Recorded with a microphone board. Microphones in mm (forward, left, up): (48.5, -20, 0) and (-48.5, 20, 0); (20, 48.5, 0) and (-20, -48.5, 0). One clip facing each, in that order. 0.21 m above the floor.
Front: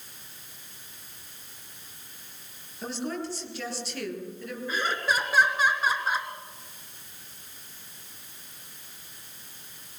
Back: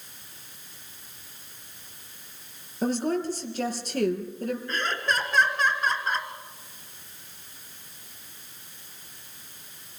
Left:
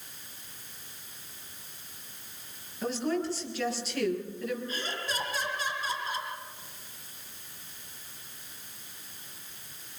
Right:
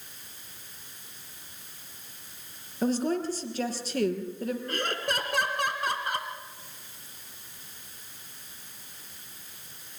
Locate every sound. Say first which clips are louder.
2.8 s a woman speaking: back 7 dB, right 3 dB; 160° right, 5 m
4.7 s laughter: front 4 dB, right 5 dB; 105° right, 2.5 m